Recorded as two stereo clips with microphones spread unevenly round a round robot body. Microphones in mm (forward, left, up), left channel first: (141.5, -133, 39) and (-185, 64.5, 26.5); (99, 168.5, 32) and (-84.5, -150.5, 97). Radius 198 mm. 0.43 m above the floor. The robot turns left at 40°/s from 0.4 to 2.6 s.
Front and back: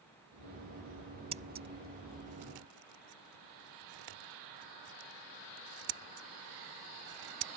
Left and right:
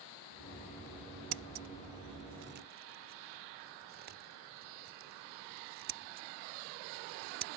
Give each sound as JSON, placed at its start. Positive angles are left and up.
{"t": 1.3, "sound": "scissors", "azimuth_deg": -135}